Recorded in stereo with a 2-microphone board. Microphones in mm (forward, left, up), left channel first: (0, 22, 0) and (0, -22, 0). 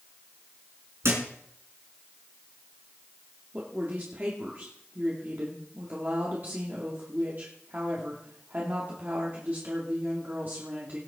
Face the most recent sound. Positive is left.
turn(degrees=-45)  # may be behind; listen again after turning